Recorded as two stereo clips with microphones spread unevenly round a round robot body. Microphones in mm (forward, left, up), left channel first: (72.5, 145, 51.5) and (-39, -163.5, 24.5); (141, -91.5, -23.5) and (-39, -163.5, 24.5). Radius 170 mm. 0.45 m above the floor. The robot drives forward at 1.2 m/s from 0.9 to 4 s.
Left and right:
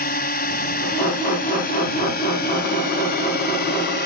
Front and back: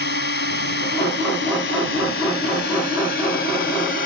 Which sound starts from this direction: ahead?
A drone, at 0.0 s.